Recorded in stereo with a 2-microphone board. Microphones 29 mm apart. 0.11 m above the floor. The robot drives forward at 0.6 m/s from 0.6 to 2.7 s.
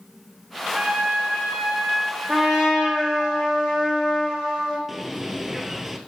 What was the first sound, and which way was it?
A trumpet, 55° right (ahead or behind).